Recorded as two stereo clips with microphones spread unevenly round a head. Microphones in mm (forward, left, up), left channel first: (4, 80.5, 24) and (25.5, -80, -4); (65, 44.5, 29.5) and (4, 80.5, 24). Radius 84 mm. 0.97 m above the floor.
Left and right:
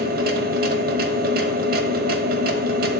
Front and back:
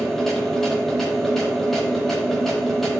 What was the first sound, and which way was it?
A machine running, 115° right.